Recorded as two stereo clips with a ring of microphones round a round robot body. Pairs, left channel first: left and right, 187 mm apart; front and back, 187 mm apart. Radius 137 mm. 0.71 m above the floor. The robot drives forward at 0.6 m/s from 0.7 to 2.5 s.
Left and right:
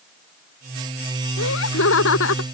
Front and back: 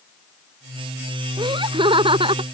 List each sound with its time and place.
1.4 s laughter: 115° left; by 2.4 s 120° left